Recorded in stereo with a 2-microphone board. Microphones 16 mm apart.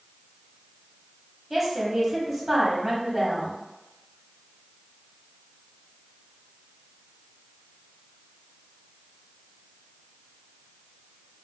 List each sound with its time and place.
1.5 s a woman speaking: 10° right (ahead or behind), 1.1 m